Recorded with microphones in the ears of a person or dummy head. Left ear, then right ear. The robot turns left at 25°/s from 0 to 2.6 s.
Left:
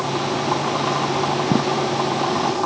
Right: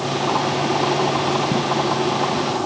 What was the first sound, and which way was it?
Only background noise.